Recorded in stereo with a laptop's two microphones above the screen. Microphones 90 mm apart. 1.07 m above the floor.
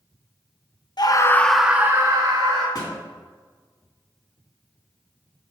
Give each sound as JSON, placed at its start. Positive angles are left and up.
{"t": 1.0, "sound": "a scream", "side_deg": 50, "distance_m": 1.0}
{"t": 2.8, "sound": "a thud", "side_deg": 45, "distance_m": 2.5}